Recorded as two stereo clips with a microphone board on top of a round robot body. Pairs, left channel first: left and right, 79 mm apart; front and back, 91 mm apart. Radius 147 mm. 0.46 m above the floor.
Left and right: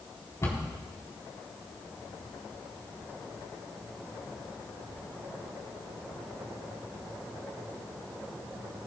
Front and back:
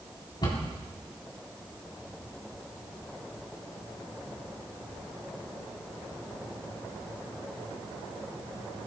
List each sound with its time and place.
0.4 s a cupboard door: 40° left, 3.5 m